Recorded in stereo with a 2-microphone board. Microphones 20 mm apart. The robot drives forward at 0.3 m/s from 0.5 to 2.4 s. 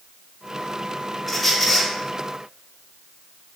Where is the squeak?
10° left (ahead or behind), 1.3 m.